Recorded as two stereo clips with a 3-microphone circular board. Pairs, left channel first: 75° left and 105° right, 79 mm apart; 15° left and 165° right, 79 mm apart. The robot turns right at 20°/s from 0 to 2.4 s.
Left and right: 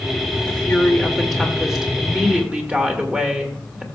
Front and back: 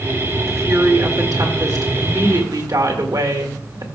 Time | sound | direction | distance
0.5 | a woman speaking | 145° left | 1.7 m